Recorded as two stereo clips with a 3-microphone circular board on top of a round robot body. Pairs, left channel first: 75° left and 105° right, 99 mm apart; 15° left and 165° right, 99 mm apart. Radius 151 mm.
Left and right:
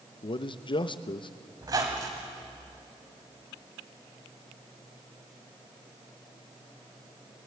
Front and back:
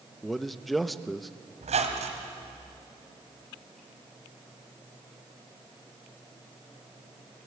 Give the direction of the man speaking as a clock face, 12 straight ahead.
9 o'clock.